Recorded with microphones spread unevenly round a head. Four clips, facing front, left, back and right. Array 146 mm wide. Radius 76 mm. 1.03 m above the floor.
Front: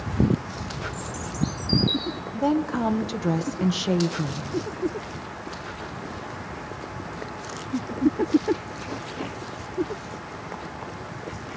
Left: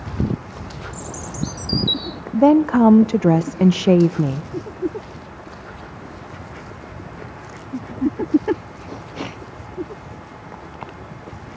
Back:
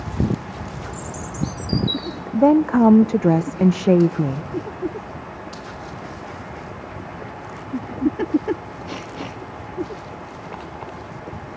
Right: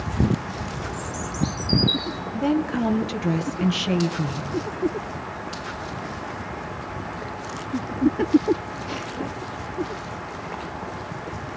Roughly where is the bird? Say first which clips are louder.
Right 2 dB, back 2 dB; left.